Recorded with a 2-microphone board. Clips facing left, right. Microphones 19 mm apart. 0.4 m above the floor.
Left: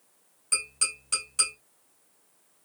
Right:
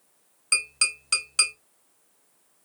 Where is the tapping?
40° right (ahead or behind), 2.5 m.